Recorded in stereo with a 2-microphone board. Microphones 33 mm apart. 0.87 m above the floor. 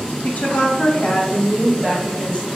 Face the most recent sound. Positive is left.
turn(degrees=30)  # may be behind; listen again after turning